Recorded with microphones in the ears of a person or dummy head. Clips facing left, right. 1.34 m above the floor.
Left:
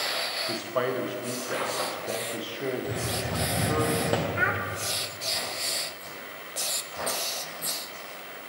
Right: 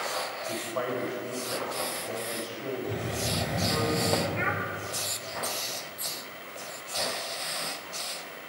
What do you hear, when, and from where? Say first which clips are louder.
0.5 s a man speaking: left 4 dB; 45° left (ahead or behind), 0.8 m
2.8 s a hiss: left 1 dB; 15° left (ahead or behind), 0.6 m
4.3 s a child speaking: left 1 dB; 10° left (ahead or behind), 0.6 m